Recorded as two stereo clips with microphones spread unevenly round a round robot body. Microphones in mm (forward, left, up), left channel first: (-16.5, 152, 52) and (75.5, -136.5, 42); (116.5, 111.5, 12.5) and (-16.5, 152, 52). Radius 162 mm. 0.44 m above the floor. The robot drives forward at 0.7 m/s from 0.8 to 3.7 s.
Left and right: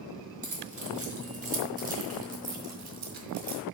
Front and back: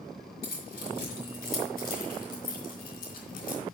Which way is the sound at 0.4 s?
25° right.